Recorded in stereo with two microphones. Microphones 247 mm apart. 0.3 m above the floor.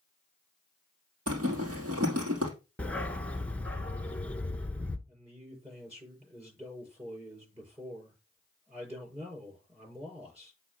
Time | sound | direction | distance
1.3 | a zipper | 70° right (ahead or behind) | 3 m
2.8 | a dog barking | 5° left (ahead or behind) | 0.8 m
5.1 | a man speaking | 25° right (ahead or behind) | 7 m